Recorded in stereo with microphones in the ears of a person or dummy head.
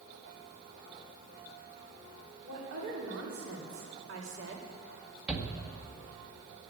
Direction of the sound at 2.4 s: 80° right.